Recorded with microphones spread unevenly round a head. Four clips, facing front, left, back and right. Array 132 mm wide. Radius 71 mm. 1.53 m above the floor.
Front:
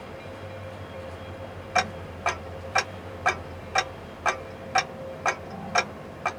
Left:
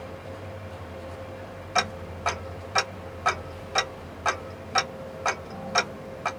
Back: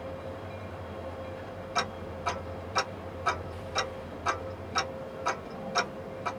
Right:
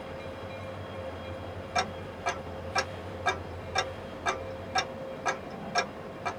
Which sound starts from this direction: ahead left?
Ticking, at 1.8 s.